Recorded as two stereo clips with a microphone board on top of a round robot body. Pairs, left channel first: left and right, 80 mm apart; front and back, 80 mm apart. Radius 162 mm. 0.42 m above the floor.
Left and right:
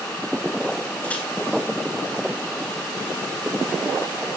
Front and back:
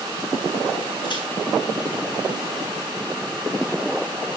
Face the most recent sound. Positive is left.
turn(degrees=15)